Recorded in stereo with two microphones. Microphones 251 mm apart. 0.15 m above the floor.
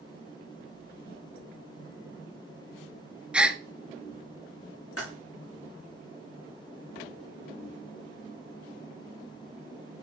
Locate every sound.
3.3 s a gasp: 5° right (ahead or behind), 0.6 m
5.0 s typing on a keyboard: 65° left (ahead or behind), 7 m